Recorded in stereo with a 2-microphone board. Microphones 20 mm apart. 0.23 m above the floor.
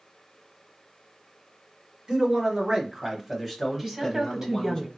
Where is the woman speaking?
25° right (ahead or behind), 1.1 m.